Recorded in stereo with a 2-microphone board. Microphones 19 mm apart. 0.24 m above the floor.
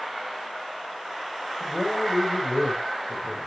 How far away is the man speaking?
About 5 m.